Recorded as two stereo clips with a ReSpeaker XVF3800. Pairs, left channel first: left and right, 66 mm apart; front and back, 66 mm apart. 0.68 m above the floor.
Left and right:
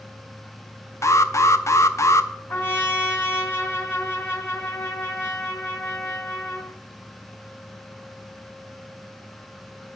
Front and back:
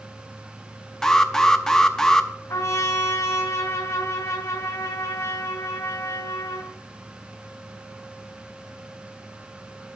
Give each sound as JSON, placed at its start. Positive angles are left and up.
{"t": 1.0, "sound": "an alarm", "azimuth_deg": 75, "distance_m": 0.5}
{"t": 2.5, "sound": "a trumpet", "azimuth_deg": 35, "distance_m": 1.6}